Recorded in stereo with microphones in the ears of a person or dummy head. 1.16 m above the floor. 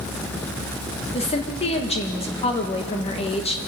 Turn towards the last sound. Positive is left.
turn(degrees=30)  # may be behind; listen again after turning